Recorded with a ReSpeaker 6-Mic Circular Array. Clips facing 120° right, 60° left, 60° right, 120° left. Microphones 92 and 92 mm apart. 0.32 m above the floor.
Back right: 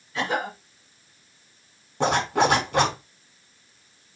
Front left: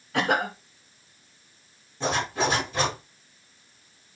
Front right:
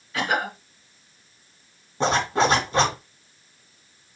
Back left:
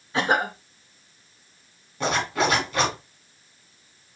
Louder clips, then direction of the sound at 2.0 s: Back right 5 dB, front right 3 dB; 115° right.